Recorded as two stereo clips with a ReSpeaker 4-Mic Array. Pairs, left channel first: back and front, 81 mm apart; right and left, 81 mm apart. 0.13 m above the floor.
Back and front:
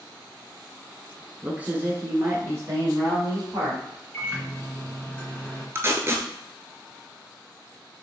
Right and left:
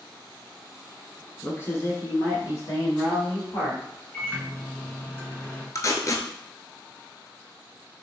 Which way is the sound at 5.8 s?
50° right.